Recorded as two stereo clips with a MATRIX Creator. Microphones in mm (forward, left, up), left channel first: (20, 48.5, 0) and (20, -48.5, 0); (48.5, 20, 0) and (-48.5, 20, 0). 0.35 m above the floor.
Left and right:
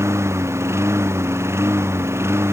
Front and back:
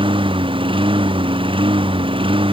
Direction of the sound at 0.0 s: 150° right.